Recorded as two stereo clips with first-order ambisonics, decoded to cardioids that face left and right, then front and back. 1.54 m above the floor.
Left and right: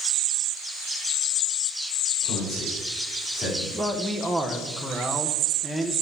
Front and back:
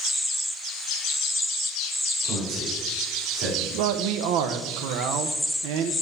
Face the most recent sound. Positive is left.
turn(degrees=180)